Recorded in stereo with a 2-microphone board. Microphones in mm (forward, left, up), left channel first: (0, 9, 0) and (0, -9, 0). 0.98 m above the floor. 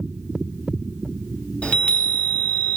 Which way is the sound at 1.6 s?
80° left.